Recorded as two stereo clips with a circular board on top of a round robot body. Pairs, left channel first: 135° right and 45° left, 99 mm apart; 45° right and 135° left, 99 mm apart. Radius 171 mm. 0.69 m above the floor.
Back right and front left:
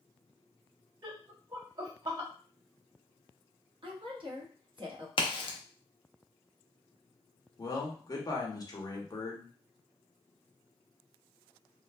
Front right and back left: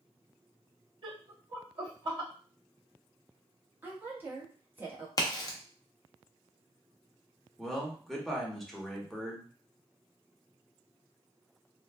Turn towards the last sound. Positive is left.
turn(degrees=-130)